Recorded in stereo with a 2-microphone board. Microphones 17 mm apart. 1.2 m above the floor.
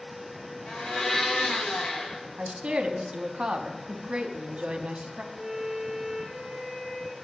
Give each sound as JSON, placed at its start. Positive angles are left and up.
{"t": 0.7, "sound": "a blender", "side_deg": 85, "distance_m": 1.0}
{"t": 2.4, "sound": "a woman speaking", "side_deg": -85, "distance_m": 0.7}
{"t": 5.3, "sound": "a violin", "side_deg": 65, "distance_m": 2.5}